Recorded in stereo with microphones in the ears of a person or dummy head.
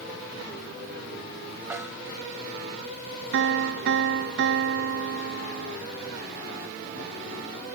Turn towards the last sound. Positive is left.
turn(degrees=-75)  # may be behind; listen again after turning